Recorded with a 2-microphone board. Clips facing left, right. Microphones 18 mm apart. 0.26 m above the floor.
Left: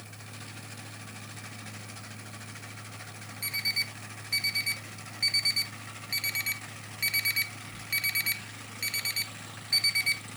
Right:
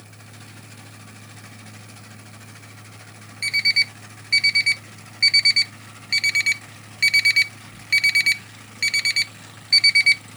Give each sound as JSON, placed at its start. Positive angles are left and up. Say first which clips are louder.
{"t": 3.4, "sound": "an alarm clock", "louder": "right 12 dB", "side_deg": -40, "distance_m": 0.7}